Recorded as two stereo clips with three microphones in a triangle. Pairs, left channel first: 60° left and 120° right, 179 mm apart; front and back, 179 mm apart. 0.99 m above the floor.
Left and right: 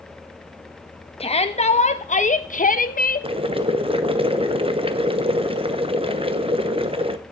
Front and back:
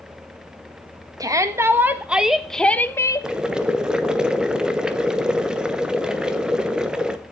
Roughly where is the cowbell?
I don't hear a cowbell.